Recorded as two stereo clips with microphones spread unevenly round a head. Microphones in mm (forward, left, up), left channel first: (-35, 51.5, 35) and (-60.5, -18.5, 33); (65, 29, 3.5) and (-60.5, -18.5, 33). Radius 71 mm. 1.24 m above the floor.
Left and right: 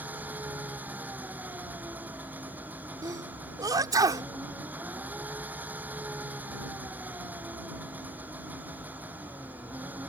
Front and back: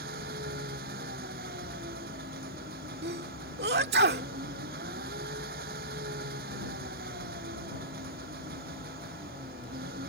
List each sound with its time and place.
0.0 s an engine running: 175° right
3.0 s a sneeze: 145° right